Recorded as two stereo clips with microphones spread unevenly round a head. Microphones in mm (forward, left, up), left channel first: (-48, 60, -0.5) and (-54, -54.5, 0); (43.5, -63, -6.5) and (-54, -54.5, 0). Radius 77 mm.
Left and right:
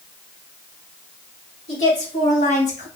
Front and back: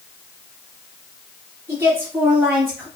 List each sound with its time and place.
1.7 s a woman speaking: 105° left, 2 m; by 2.9 s 80° left, 1.3 m